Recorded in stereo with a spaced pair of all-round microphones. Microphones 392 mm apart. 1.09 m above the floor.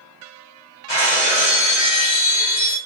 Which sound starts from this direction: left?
Breaking glass, at 0.9 s.